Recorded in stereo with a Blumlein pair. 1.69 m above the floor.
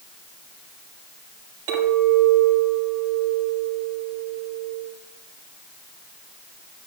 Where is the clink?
50° right, 5.5 m.